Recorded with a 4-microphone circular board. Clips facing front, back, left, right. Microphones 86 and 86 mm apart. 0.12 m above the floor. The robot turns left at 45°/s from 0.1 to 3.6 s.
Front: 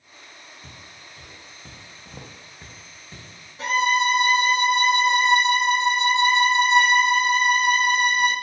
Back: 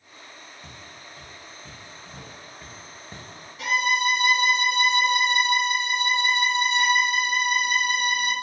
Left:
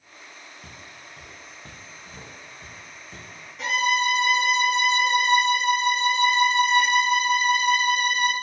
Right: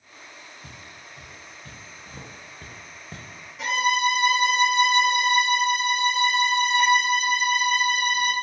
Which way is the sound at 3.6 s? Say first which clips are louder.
Front 3 dB, right 1 dB; straight ahead.